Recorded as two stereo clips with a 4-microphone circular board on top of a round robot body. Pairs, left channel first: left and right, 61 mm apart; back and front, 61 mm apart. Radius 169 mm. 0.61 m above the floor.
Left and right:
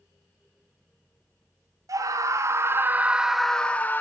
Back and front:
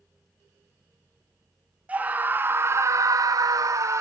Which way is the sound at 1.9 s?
65° right.